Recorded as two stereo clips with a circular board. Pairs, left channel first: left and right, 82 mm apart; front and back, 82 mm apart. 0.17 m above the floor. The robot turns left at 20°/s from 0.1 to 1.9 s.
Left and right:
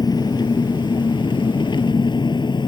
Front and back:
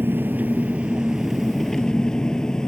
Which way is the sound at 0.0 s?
120° left.